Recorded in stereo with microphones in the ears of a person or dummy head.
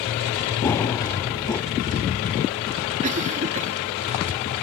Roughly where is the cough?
Right.